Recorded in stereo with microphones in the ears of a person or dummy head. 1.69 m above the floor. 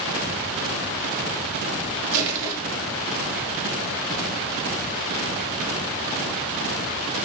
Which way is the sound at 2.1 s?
70° right (ahead or behind).